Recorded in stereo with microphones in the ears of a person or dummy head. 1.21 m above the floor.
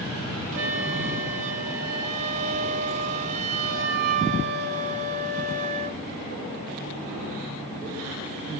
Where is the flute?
40° right (ahead or behind), 0.5 m.